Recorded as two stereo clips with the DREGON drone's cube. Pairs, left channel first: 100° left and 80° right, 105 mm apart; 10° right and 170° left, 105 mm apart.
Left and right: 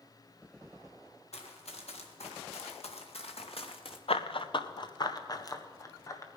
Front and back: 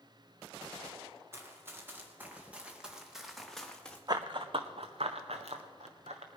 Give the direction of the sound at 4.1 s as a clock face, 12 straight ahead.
8 o'clock.